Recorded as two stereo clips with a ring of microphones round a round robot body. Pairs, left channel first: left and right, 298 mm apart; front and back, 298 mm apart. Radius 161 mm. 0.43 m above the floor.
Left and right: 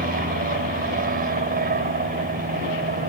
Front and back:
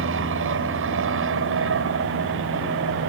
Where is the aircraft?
145° right.